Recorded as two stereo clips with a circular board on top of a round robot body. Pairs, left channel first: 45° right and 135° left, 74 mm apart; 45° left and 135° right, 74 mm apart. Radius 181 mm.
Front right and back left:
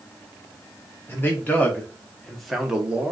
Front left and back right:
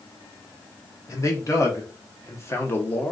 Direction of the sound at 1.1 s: 10° left.